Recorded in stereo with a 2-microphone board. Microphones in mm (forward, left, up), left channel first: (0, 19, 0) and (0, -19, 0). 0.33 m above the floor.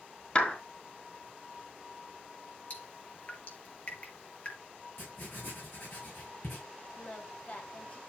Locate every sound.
0.3 s a clap: 35° left (ahead or behind), 4 m
2.7 s dripping: 35° left (ahead or behind), 3.5 m
5.0 s writing: 75° left (ahead or behind), 6.5 m
7.0 s singing: 40° left (ahead or behind), 2 m